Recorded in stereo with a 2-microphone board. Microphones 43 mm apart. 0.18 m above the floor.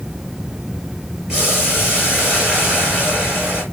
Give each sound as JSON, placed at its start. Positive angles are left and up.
{"t": 1.3, "sound": "boiling", "side_deg": -10, "distance_m": 3.0}